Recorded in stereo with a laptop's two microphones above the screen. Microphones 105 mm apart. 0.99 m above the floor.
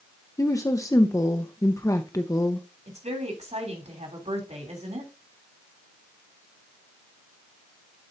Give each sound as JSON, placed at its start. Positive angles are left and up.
{"t": 0.4, "sound": "a woman speaking", "side_deg": 30, "distance_m": 0.6}
{"t": 2.9, "sound": "a woman speaking", "side_deg": -80, "distance_m": 3.0}